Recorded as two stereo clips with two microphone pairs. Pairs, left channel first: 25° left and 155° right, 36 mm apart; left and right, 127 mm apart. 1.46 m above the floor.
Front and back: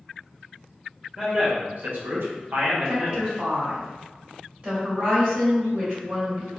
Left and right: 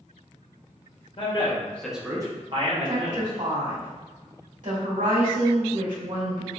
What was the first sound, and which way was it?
A man speaking, 135° left.